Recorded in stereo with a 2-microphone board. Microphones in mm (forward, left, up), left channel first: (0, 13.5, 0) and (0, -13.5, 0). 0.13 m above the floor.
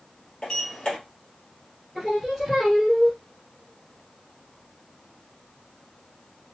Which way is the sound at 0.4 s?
30° left (ahead or behind).